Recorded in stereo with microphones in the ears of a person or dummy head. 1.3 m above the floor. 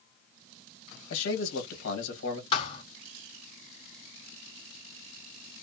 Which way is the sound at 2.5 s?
40° left (ahead or behind).